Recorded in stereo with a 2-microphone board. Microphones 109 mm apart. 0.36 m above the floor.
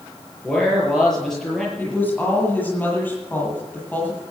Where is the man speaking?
5° left (ahead or behind), 8 m.